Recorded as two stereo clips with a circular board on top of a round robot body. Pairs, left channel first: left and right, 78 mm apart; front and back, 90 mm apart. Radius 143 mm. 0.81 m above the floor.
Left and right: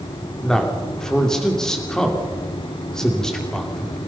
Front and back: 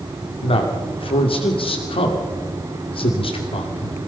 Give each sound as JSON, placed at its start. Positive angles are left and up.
{"t": 0.4, "sound": "a man speaking", "azimuth_deg": 5, "distance_m": 2.5}